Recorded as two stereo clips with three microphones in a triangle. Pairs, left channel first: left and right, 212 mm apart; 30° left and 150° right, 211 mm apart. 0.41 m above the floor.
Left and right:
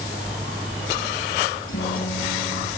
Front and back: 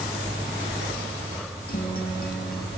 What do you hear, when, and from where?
1.7 s a guitar: 75° left, 5 m